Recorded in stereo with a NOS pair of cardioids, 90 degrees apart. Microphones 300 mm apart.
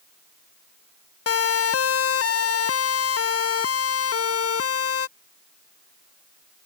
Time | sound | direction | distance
1.3 | a siren | 55° left | ?